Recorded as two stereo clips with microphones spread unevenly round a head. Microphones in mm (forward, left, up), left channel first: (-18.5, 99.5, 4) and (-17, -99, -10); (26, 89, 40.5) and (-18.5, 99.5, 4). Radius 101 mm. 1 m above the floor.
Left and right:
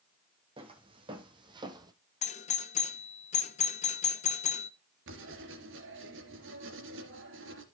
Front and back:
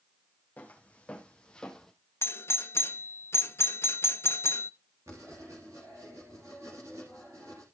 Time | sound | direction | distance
0.6 | footsteps | 25° right | 2.0 m
2.2 | a doorbell | 55° left | 0.9 m
5.1 | writing | 110° right | 2.5 m